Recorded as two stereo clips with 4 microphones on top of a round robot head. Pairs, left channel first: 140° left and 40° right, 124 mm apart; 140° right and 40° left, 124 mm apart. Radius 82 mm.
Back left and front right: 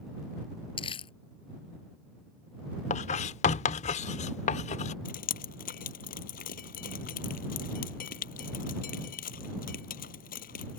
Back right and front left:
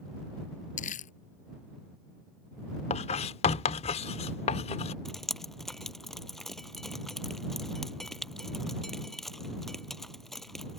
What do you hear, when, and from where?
0.8 s crumpling: 165° right
2.9 s writing: 175° left
5.0 s dripping: 130° left